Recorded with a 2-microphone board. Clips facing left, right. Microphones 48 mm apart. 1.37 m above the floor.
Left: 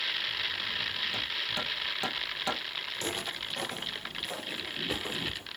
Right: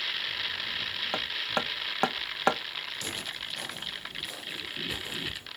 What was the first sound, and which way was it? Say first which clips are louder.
Hammering: right 3 dB; 55° right (ahead or behind).